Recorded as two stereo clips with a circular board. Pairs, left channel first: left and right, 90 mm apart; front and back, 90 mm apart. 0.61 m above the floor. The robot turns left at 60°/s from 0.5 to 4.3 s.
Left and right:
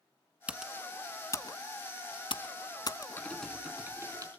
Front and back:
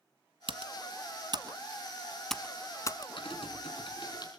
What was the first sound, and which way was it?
Typing on a keyboard, 165° right.